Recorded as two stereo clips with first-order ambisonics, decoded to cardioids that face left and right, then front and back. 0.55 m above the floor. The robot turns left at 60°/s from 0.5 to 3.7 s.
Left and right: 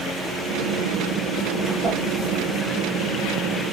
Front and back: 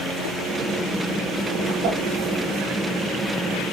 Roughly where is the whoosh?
Behind.